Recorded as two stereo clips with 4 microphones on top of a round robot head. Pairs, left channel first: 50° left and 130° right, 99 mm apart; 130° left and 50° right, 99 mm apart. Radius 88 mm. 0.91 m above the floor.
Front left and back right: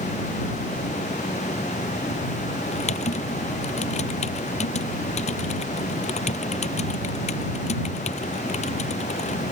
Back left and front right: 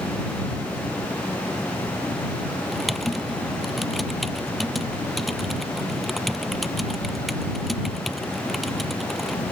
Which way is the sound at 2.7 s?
40° left.